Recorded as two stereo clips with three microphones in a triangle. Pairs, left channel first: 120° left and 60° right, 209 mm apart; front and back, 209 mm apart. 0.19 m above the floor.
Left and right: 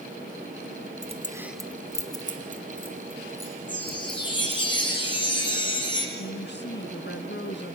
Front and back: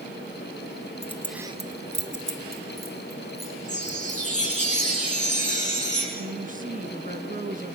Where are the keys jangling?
30° right, 0.8 m; by 4.7 s straight behind, 5 m.